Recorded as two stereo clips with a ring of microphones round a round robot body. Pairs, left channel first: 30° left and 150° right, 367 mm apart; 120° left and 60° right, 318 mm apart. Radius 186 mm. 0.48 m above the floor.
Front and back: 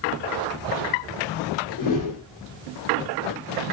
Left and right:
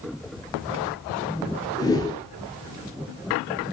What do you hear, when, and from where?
1.8 s a whoosh: 45° left, 1.5 m